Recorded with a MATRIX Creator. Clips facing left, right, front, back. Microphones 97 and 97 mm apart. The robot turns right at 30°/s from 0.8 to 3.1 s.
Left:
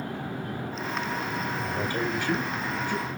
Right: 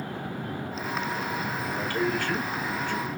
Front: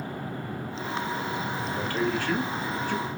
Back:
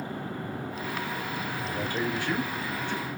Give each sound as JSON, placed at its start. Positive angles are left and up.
{"t": 1.6, "sound": "a man speaking", "azimuth_deg": 120, "distance_m": 1.0}